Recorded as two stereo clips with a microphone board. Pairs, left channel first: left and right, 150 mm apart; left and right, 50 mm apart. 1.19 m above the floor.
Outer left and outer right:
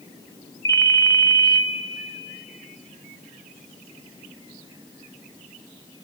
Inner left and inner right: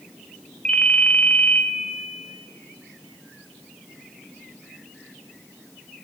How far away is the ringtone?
About 1.4 m.